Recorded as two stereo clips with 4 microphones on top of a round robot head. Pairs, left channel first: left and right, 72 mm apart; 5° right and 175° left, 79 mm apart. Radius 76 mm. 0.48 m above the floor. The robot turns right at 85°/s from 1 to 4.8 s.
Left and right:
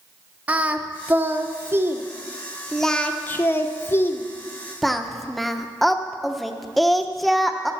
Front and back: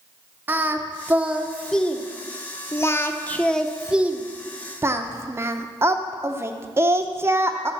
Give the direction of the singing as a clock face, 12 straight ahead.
5 o'clock.